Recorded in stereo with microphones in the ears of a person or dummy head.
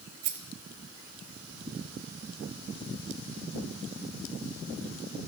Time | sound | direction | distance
0.2 | a rattle | 45° right (ahead or behind) | 0.7 m